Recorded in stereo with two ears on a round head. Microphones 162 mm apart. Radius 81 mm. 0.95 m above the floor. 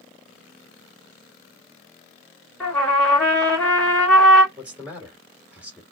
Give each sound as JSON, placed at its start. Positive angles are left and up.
{"t": 2.6, "sound": "a trumpet", "side_deg": 10, "distance_m": 1.9}
{"t": 4.6, "sound": "a man speaking", "side_deg": -5, "distance_m": 2.5}